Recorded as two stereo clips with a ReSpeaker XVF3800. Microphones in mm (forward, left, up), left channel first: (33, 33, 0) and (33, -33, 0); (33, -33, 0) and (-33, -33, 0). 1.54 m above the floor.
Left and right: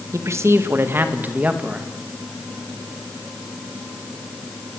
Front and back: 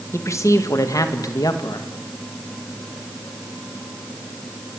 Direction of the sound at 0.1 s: 45° right.